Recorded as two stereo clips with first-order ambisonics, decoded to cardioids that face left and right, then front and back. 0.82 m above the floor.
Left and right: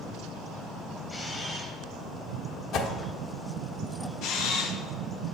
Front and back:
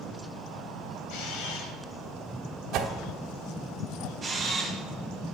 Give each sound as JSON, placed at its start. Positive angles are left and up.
{"t": 1.1, "sound": "a camera shutter", "azimuth_deg": 10, "distance_m": 1.1}
{"t": 2.7, "sound": "a whoosh", "azimuth_deg": 135, "distance_m": 1.1}
{"t": 4.2, "sound": "a camera shutter", "azimuth_deg": 100, "distance_m": 0.9}